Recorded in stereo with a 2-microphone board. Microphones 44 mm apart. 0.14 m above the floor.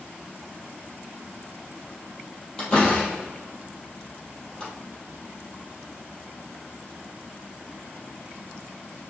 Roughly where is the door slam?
Centre.